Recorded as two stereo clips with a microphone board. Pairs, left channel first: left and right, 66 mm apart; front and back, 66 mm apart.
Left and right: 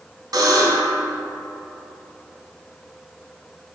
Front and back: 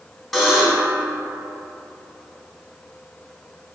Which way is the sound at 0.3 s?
90° right.